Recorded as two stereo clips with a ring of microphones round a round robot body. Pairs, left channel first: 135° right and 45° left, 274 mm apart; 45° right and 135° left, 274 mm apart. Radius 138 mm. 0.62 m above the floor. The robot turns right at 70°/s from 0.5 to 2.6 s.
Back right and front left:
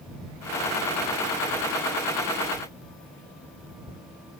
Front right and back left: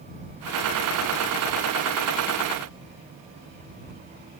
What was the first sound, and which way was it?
Only background noise.